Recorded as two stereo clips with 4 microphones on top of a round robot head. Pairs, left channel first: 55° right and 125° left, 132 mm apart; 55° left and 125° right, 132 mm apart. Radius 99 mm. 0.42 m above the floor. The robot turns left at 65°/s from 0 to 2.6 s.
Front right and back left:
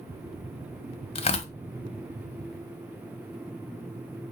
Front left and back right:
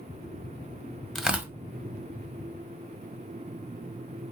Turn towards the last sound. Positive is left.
turn(degrees=-130)